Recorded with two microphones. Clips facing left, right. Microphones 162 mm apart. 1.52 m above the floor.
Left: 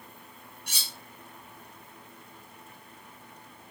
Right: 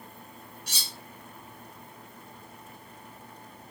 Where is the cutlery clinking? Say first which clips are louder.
Even; 55° left (ahead or behind), 1.3 m.